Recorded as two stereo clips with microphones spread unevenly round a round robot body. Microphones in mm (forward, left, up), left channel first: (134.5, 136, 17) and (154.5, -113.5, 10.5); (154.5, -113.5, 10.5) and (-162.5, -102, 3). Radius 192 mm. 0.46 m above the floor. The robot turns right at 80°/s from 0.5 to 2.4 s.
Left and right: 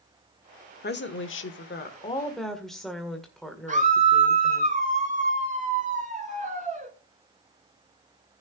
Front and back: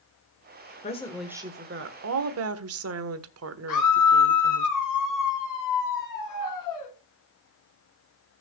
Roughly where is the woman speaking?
Ahead left.